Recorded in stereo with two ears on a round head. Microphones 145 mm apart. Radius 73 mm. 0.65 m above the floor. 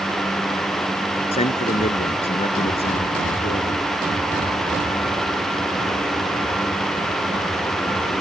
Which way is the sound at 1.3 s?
35° left (ahead or behind).